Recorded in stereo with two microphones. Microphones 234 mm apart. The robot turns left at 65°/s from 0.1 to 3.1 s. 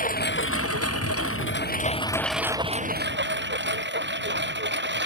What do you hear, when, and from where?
0.0 s a lawn mower: 35° left (ahead or behind); by 5.1 s 50° right (ahead or behind)